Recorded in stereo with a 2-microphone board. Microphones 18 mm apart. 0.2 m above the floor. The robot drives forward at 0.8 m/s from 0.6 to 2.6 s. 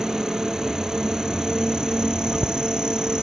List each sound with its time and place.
0.0 s an insect: 40° right (ahead or behind); by 3.2 s 45° right (ahead or behind)